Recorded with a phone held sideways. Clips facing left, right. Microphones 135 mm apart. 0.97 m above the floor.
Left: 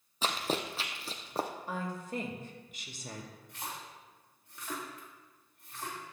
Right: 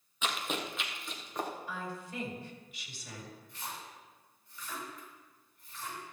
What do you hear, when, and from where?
0.2 s running footsteps: 35° left (ahead or behind), 1.2 m
1.7 s a woman speaking: 45° left (ahead or behind), 2 m
3.5 s a splash: 70° left (ahead or behind), 3.5 m